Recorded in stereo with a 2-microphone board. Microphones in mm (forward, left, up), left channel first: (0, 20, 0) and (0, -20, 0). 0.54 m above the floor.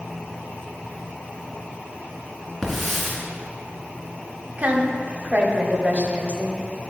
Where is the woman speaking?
40° right (ahead or behind), 1.3 m.